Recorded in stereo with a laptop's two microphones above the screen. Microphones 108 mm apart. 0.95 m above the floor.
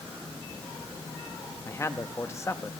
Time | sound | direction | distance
1.6 | a man speaking | 25° left (ahead or behind) | 1.0 m